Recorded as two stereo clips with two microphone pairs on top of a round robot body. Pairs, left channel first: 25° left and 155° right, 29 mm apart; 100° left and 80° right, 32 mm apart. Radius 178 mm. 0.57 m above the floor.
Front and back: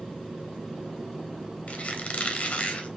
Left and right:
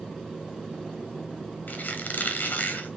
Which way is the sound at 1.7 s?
75° left.